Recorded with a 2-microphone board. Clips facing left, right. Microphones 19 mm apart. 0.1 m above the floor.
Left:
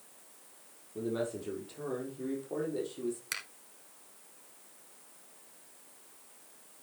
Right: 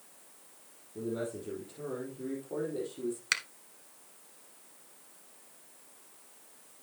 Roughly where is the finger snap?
Right.